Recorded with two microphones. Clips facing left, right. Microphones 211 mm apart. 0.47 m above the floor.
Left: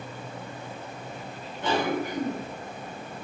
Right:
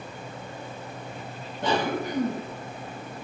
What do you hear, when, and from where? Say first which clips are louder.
1.6 s a cough: even; 65° right (ahead or behind), 1.8 m